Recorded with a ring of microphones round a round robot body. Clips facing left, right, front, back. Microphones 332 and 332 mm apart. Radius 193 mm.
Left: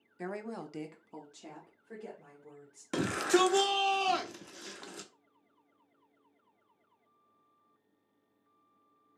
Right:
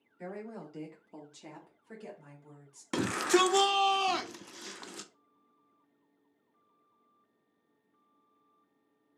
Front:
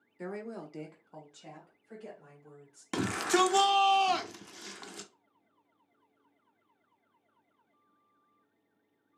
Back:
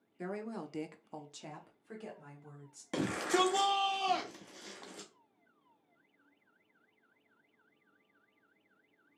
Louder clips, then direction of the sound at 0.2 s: Left 2 dB, front 1 dB; 85° left.